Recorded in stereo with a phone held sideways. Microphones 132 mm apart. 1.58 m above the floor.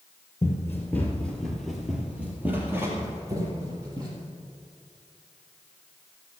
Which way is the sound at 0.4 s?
25° left (ahead or behind).